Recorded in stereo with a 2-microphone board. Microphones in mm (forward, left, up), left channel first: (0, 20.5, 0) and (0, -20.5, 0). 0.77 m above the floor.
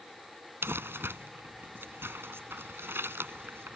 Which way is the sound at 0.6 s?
90° right.